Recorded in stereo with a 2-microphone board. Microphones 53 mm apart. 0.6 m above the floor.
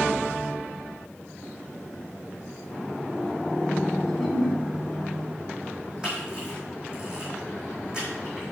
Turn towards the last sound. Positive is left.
turn(degrees=-20)  # may be behind; listen again after turning